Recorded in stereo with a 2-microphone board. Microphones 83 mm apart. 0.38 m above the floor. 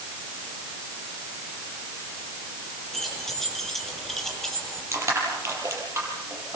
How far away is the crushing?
About 9 m.